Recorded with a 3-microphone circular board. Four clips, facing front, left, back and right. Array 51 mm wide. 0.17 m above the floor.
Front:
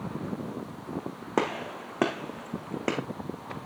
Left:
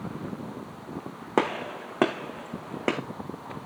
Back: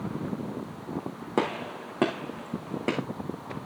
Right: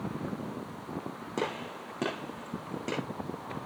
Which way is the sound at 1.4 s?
75° left.